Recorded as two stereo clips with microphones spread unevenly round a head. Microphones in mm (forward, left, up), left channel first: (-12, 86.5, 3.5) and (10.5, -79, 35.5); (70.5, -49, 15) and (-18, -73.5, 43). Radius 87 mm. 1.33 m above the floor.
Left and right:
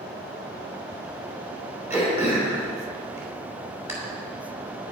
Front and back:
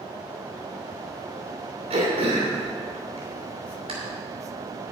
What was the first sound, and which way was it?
Throat clearing, 155° right.